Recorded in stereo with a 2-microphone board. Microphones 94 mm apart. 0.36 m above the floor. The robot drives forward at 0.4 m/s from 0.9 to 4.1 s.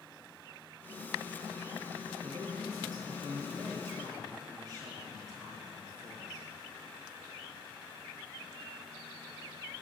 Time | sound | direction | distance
2.2 | a man speaking | 45° right (ahead or behind) | 4 m